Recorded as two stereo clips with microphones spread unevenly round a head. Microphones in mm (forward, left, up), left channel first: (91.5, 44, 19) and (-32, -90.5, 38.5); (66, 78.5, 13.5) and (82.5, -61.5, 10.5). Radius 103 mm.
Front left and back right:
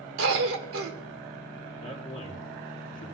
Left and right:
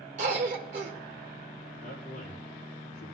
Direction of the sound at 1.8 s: 115° left.